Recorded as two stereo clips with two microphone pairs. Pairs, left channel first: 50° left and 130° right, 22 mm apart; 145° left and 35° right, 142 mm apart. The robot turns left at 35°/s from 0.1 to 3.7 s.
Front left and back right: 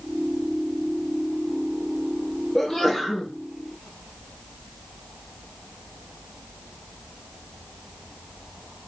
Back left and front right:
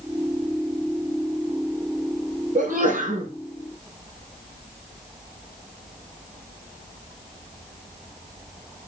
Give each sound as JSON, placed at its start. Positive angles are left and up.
{"t": 2.5, "sound": "a sneeze", "azimuth_deg": -20, "distance_m": 3.0}